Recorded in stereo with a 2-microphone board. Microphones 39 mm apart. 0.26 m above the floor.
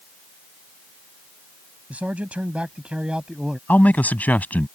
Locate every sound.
1.9 s a man speaking: 45° right (ahead or behind); by 3.6 s 20° right (ahead or behind)
3.7 s a man speaking: 50° left (ahead or behind)